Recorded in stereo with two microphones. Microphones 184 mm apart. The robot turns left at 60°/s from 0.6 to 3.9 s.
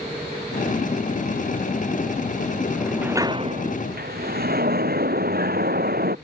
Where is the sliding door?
10° left; by 6.2 s 60° right.